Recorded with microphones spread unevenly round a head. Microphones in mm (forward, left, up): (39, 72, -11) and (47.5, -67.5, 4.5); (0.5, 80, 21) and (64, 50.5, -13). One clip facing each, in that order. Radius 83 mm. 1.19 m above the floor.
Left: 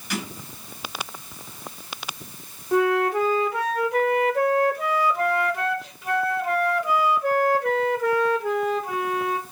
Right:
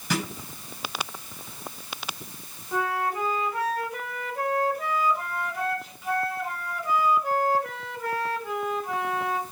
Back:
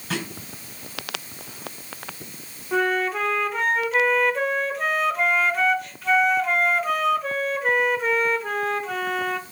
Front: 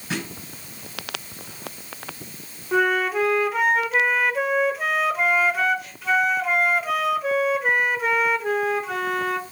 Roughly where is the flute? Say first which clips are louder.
Left 8 dB, front 2 dB; left.